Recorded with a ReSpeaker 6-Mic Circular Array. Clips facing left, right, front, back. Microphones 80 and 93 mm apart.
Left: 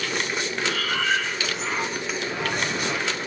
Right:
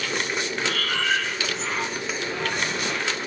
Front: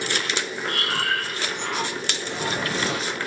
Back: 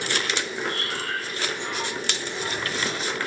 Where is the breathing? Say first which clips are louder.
Left 1 dB, front 4 dB; 5° left, 1.0 m.